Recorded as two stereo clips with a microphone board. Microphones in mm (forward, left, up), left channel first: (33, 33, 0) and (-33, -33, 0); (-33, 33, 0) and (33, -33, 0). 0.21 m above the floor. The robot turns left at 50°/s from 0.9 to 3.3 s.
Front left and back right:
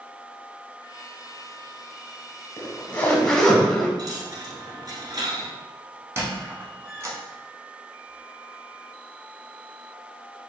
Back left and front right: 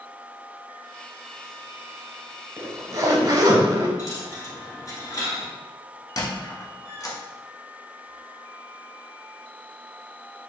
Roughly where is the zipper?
Ahead.